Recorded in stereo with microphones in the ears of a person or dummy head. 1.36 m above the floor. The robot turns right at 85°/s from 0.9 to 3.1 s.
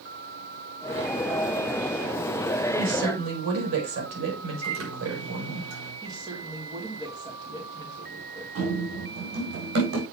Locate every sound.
2.8 s a woman speaking: 50° right (ahead or behind), 4.5 m; by 5.6 s 80° right, 4.5 m
4.6 s a microwave: 90° right, 4 m
6.0 s a woman speaking: 20° right (ahead or behind), 2.5 m
8.6 s running footsteps: 60° right (ahead or behind), 4 m; by 10.0 s 65° right (ahead or behind), 3.5 m